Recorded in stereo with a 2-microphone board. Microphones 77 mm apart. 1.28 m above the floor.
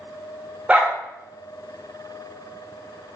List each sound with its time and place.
0.7 s a dog barking: 15° right (ahead or behind), 0.7 m